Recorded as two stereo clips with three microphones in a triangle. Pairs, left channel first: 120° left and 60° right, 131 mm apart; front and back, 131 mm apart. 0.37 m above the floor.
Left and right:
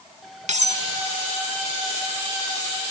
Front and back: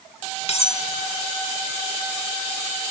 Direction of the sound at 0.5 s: 35° right.